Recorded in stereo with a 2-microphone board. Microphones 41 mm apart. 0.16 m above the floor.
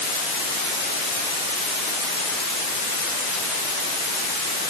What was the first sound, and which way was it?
Only background noise.